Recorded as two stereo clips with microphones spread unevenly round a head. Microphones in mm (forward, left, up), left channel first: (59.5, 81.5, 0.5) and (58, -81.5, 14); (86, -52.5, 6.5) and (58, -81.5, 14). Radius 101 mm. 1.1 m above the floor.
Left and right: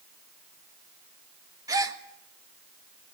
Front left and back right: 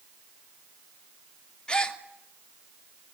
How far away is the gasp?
About 2.5 m.